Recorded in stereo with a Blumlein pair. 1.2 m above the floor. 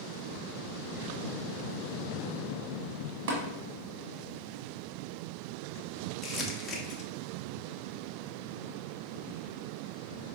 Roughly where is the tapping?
Ahead right.